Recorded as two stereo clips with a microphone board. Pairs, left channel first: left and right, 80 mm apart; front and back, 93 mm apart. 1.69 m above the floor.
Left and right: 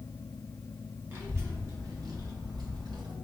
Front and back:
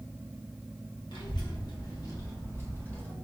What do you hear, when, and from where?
1.1 s a child speaking: 35° right, 1.8 m; by 3.1 s 75° right, 1.5 m